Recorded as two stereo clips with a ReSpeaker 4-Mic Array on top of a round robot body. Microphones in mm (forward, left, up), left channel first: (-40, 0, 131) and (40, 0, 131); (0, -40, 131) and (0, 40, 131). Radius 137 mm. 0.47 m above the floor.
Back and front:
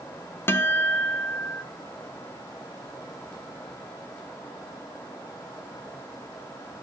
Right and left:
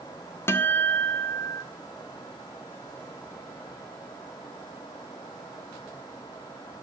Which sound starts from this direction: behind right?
A guitar, at 0.5 s.